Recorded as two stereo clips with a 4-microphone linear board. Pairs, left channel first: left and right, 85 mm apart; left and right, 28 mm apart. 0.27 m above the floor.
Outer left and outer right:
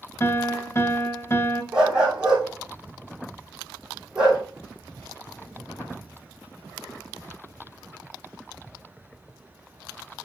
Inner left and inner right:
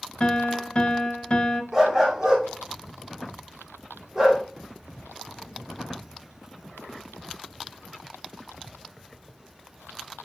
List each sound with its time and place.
0.2 s a piano: 35° left (ahead or behind), 0.9 m
1.7 s a dog barking: 10° right (ahead or behind), 3.5 m